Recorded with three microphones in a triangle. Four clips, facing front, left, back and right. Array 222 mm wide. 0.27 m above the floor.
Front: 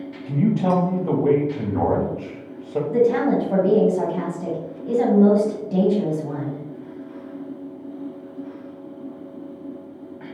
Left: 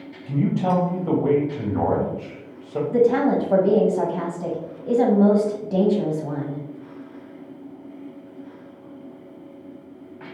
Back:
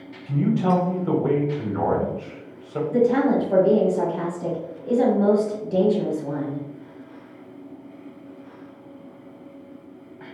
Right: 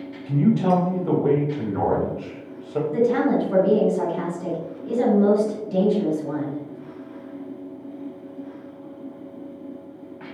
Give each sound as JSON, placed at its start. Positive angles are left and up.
{"t": 0.3, "sound": "a man speaking", "azimuth_deg": 15, "distance_m": 1.4}
{"t": 2.9, "sound": "a woman speaking", "azimuth_deg": 85, "distance_m": 2.0}